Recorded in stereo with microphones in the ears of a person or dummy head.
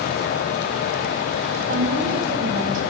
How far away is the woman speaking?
About 1.1 m.